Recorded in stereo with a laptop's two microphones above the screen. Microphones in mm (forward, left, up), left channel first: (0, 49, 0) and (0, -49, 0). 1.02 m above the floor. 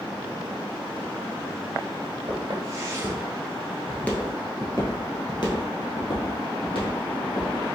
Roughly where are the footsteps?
Right.